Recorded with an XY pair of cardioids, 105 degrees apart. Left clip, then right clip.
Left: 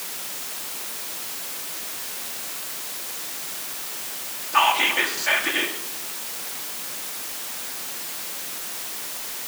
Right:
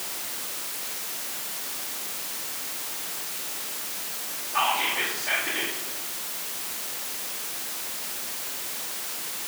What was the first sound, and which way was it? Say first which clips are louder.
Whispering: left 6 dB; 65° left.